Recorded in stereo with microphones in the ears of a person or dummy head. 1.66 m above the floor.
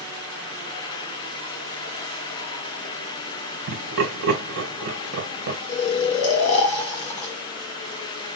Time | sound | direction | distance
3.7 | laughter | 70° right (ahead or behind) | 1.7 m
5.7 | snoring | 40° left (ahead or behind) | 1.9 m